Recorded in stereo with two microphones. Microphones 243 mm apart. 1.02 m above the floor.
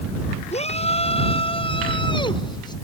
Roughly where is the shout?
Left.